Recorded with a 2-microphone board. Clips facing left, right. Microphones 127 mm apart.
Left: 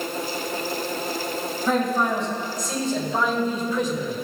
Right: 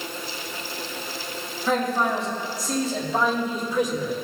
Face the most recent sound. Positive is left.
turn(degrees=-15)  # may be behind; listen again after turning